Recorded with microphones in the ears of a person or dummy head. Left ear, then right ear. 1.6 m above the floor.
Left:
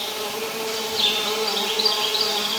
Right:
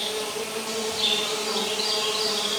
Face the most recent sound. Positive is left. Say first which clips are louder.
# left 1 dB
turn(degrees=25)  # may be behind; listen again after turning